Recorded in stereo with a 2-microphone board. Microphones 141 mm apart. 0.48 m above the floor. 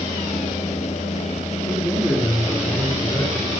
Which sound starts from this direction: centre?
A man speaking, at 1.7 s.